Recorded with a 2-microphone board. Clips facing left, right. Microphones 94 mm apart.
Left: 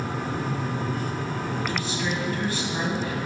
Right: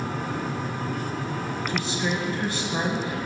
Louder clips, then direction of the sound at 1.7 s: Right 1 dB; 20° right (ahead or behind).